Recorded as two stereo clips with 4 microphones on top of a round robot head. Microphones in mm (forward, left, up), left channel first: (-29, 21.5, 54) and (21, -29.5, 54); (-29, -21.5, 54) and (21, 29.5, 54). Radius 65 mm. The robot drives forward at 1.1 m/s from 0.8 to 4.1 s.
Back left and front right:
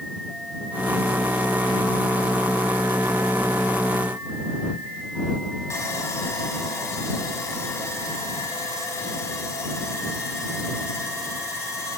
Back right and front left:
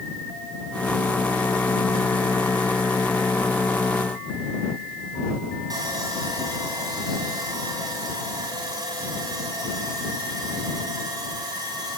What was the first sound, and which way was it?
Sawing, 80° left.